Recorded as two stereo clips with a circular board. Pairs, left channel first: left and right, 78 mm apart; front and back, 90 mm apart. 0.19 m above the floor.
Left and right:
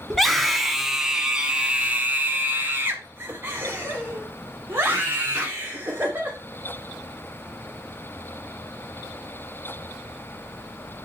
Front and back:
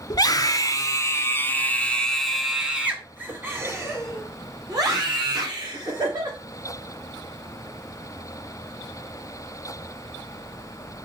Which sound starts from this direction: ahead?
A scream, at 0.1 s.